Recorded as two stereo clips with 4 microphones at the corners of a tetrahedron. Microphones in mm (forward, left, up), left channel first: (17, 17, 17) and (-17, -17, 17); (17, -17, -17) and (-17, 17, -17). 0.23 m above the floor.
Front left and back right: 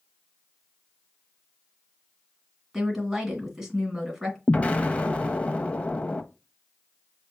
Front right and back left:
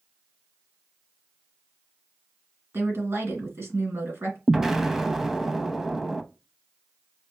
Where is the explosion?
60° left, 0.6 m.